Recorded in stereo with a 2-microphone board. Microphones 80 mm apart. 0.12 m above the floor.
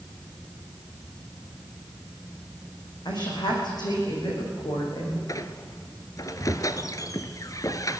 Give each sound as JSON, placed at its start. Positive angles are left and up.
{"t": 3.0, "sound": "a woman speaking", "side_deg": 65, "distance_m": 7.0}
{"t": 5.3, "sound": "a squeak", "side_deg": 45, "distance_m": 1.0}